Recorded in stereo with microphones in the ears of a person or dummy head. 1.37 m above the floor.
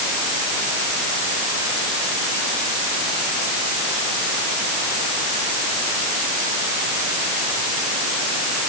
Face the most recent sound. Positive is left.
No sound to turn to.